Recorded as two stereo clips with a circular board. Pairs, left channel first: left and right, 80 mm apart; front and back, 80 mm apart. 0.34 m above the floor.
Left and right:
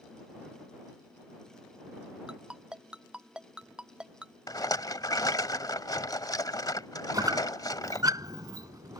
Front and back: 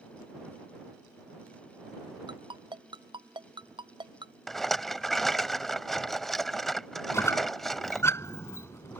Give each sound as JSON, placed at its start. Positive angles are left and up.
{"t": 2.3, "sound": "a ringtone", "azimuth_deg": -170}
{"t": 4.5, "sound": "a rattle", "azimuth_deg": 85}
{"t": 7.1, "sound": "a squeak", "azimuth_deg": -55}